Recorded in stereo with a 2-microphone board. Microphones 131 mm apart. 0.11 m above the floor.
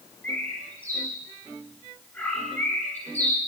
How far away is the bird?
About 5.5 m.